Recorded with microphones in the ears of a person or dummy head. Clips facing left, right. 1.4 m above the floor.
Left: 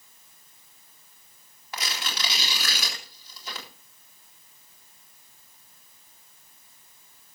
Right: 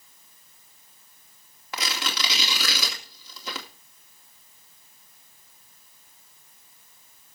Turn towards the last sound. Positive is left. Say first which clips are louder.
# right 3 dB
turn(degrees=-60)  # may be behind; listen again after turning